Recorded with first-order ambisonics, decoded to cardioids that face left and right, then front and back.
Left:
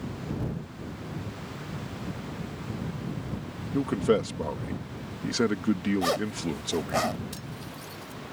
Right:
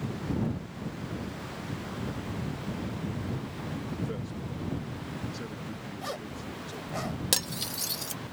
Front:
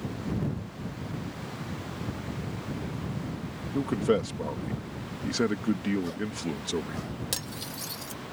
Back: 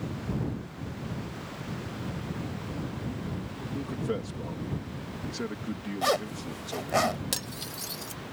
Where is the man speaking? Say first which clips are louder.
Left 16 dB, front 8 dB; 65° left.